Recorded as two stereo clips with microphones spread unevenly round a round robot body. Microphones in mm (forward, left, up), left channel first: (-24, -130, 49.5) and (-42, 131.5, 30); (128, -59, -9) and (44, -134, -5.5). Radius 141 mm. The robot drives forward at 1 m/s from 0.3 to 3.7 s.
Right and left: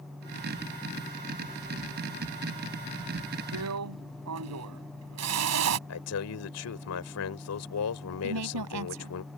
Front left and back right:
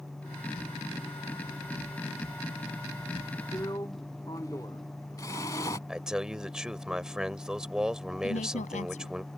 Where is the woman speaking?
70° left.